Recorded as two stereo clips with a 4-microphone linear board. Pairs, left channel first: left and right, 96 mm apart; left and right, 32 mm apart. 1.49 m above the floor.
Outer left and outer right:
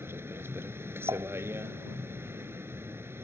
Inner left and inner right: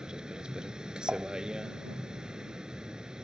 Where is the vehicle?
25° right (ahead or behind).